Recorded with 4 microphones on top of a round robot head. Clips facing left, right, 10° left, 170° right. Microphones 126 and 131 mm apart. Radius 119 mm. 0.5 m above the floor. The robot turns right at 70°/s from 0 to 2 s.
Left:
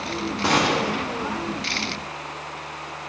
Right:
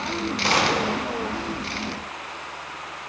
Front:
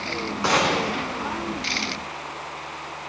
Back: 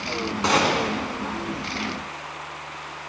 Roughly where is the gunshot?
Behind left.